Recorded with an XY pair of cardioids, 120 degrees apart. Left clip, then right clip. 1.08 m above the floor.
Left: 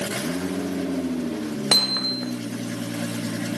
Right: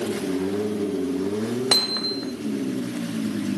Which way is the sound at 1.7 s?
15° left.